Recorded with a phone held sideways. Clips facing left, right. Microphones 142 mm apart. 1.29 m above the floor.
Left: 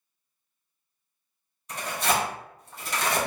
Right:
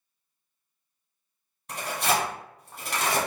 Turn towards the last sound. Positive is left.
turn(degrees=-60)  # may be behind; listen again after turning